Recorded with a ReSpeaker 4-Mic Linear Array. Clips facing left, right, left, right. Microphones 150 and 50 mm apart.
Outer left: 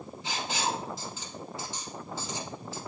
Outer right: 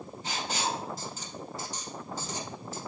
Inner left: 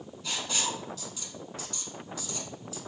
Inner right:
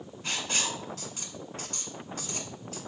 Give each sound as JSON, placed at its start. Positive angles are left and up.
{"t": 0.2, "sound": "writing", "side_deg": -45, "distance_m": 1.1}